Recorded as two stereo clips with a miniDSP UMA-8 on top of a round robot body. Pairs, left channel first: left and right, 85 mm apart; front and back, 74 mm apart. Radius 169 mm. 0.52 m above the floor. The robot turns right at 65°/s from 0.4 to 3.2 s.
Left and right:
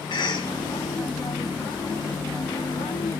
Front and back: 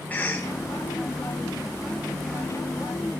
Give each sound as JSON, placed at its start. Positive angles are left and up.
{"t": 0.1, "sound": "a cough", "azimuth_deg": 65, "distance_m": 1.9}